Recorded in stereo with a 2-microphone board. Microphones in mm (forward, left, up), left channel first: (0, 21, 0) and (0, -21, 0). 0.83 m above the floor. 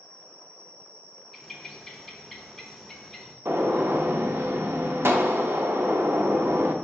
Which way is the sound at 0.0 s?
25° left (ahead or behind).